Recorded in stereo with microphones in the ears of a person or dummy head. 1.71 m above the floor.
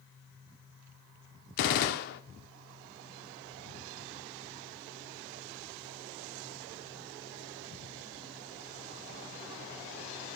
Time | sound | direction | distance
1.6 | a gunshot | 50° left (ahead or behind) | 0.7 m